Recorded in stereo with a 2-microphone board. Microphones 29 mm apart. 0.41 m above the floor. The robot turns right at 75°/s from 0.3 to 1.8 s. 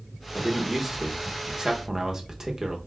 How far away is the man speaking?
About 0.7 m.